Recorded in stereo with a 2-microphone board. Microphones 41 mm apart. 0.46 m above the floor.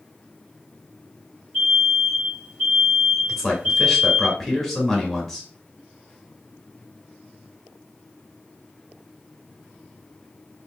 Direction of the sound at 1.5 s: 15° right (ahead or behind).